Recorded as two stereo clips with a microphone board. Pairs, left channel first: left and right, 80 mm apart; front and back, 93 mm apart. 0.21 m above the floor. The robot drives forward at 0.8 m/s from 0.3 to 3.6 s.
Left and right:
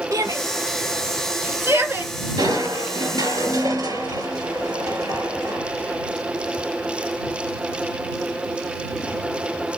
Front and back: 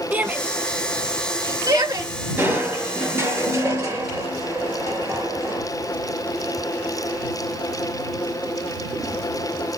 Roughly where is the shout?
Behind right.